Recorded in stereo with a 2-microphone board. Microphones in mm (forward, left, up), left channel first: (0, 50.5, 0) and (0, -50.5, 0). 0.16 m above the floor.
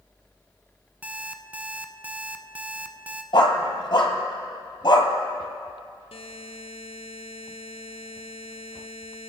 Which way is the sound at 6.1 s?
80° left.